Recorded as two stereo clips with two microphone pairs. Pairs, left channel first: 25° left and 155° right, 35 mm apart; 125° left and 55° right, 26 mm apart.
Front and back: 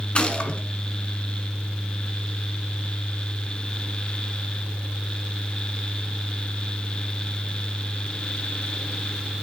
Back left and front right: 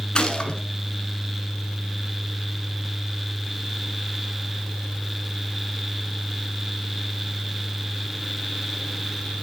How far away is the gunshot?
About 1.3 m.